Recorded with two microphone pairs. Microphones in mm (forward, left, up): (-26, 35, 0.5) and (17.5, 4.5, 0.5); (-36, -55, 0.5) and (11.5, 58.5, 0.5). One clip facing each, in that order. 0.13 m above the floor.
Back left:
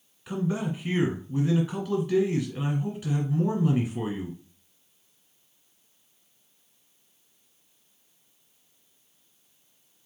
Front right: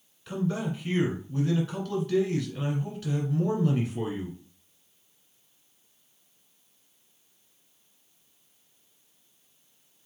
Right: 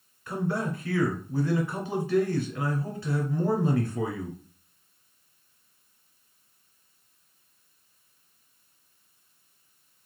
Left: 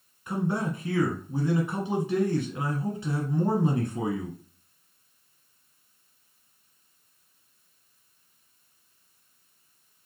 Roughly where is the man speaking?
Left.